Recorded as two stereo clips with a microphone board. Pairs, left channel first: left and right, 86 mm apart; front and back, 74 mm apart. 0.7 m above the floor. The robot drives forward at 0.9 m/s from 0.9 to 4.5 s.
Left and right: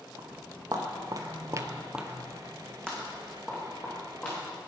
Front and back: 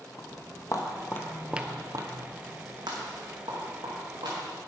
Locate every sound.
0.2 s footsteps: 40° right, 2.5 m; by 4.4 s 165° left, 6 m